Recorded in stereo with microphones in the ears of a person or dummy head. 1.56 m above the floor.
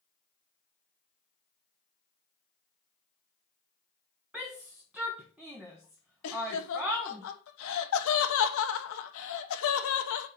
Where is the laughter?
70° left (ahead or behind), 1.2 m.